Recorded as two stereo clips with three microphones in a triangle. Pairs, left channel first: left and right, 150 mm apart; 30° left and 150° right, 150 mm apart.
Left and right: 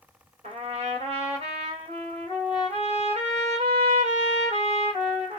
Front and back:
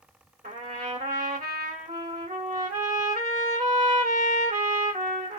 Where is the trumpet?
135° right, 1.9 m.